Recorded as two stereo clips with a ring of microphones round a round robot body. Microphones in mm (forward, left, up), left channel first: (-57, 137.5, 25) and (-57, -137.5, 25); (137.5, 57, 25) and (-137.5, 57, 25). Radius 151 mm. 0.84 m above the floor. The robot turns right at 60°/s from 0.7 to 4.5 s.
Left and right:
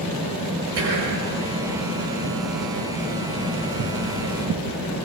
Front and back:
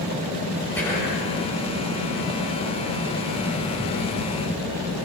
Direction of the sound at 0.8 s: 85° right.